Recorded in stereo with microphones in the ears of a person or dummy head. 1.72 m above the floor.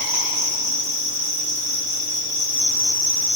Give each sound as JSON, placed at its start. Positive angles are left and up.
{"t": 0.0, "sound": "an insect", "side_deg": -40, "distance_m": 3.5}